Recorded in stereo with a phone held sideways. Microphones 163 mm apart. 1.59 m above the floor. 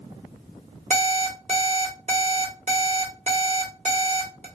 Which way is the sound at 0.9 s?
45° right (ahead or behind).